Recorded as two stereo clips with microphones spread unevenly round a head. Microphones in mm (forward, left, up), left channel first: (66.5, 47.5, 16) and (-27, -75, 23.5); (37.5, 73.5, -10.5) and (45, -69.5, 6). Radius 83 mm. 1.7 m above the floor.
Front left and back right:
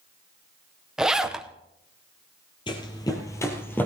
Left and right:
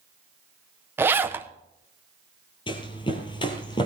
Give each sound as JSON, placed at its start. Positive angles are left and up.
{"t": 1.0, "sound": "a zipper", "azimuth_deg": -50, "distance_m": 0.7}
{"t": 2.7, "sound": "running footsteps", "azimuth_deg": 80, "distance_m": 1.9}